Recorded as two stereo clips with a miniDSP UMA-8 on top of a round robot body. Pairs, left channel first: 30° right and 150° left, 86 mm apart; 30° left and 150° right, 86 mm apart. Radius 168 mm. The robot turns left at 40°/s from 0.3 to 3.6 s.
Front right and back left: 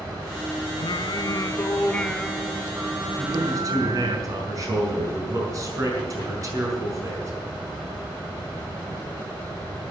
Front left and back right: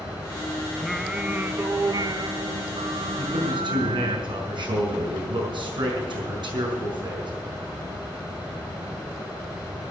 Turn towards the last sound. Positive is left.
turn(degrees=-160)